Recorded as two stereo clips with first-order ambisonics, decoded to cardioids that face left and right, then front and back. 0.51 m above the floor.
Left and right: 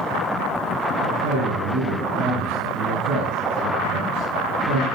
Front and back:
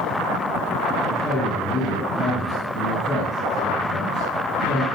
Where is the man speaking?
70° right, 9 m.